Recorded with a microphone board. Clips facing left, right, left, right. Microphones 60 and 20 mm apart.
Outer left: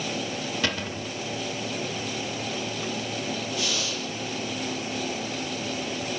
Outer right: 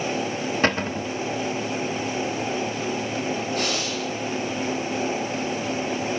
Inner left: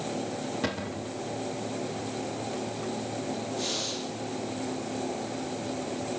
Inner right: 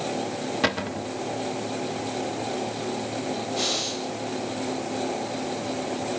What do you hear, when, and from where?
0.6 s a cupboard door: 40° right (ahead or behind), 1.3 m
3.6 s breathing: 55° right (ahead or behind), 6 m